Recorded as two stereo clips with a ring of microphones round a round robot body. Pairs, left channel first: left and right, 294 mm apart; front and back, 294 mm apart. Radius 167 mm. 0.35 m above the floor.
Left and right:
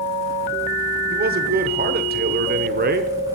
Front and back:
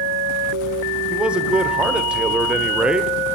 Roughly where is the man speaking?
Right.